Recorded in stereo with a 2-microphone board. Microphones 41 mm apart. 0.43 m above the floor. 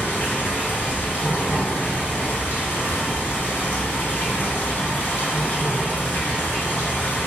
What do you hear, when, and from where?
0.0 s running water: 60° left (ahead or behind), 0.9 m